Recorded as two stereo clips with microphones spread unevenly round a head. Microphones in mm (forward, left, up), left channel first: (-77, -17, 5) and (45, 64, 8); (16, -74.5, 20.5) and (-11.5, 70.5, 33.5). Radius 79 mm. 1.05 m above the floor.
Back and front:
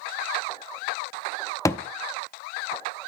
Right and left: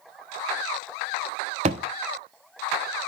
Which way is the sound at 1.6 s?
145° left.